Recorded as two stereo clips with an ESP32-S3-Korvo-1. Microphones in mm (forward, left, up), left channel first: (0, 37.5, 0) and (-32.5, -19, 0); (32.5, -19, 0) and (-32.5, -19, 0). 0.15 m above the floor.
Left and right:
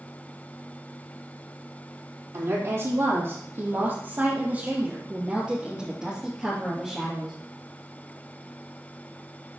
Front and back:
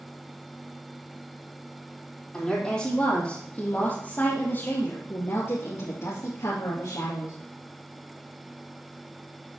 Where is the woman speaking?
80° right, 4 m; by 7.3 s 20° right, 3 m.